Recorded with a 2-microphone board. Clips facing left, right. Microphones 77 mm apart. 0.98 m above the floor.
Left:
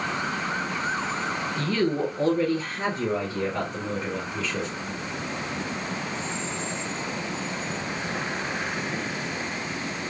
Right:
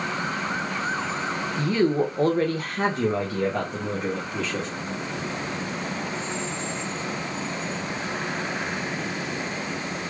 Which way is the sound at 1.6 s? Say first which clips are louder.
Right 4 dB; 10° right (ahead or behind).